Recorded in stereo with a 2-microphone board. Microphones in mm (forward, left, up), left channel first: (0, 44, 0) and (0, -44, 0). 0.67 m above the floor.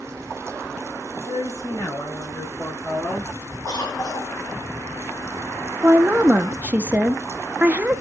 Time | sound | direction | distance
1.2 | a woman speaking | 40° left (ahead or behind) | 3.5 m
3.7 | a cough | 45° left (ahead or behind) | 1.9 m
5.8 | a woman speaking | 20° right (ahead or behind) | 0.5 m